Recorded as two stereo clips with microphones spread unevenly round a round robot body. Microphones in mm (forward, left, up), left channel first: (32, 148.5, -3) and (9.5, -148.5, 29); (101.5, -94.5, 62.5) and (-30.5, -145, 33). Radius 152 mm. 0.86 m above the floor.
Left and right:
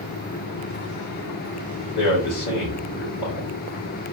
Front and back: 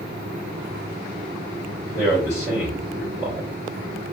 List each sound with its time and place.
1.9 s a man speaking: 100° left, 2 m